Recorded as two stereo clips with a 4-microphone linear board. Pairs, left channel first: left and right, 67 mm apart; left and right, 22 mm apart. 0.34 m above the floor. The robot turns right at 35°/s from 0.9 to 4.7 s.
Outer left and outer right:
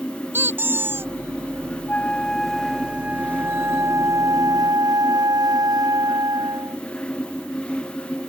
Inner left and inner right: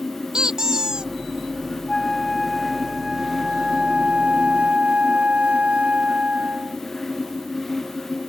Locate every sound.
0.3 s a squeak: 35° right (ahead or behind); by 1.1 s 40° right (ahead or behind)
1.9 s a flute: 155° left; by 6.8 s 105° right